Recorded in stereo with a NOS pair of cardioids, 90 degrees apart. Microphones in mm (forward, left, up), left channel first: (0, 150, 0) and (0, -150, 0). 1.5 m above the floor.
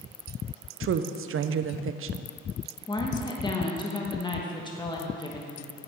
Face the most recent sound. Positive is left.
turn(degrees=15)